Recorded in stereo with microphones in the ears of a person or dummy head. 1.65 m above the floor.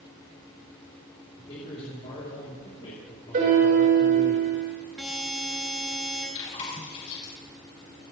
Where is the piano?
50° right (ahead or behind), 7.5 m.